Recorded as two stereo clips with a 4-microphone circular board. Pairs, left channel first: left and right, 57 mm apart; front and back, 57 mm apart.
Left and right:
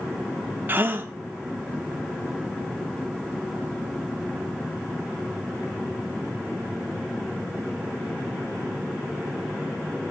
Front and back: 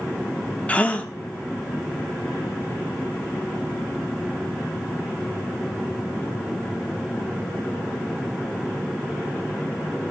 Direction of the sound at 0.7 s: 55° right.